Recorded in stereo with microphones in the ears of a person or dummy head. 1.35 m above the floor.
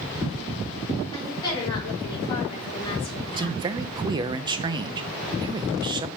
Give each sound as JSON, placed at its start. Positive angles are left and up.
{"t": 1.1, "sound": "a woman speaking", "side_deg": 25, "distance_m": 5.0}
{"t": 3.4, "sound": "a man speaking", "side_deg": -20, "distance_m": 0.7}